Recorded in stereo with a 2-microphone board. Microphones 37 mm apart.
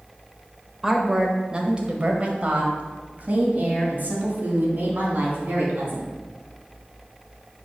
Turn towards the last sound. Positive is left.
turn(degrees=-55)  # may be behind; listen again after turning